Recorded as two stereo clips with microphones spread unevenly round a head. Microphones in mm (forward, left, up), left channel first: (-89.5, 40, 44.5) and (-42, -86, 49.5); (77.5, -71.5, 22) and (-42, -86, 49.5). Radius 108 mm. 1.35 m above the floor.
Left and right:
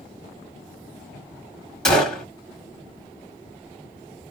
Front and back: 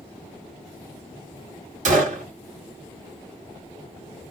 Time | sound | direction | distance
1.9 | a gunshot | 165° right | 1.6 m